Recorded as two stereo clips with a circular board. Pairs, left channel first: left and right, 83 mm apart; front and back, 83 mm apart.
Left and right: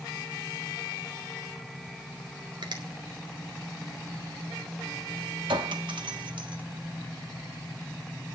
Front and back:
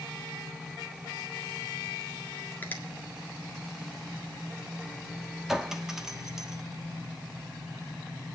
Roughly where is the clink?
Right.